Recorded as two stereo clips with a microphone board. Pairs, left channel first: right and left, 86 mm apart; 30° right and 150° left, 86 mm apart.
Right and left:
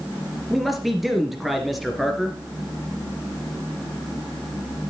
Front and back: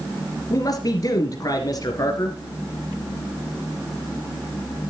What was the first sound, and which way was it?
A man speaking, straight ahead.